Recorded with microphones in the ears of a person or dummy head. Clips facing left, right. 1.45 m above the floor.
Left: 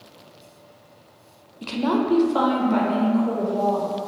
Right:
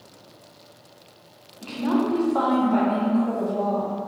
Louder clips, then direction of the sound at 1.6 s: Left 1 dB; 70° left (ahead or behind).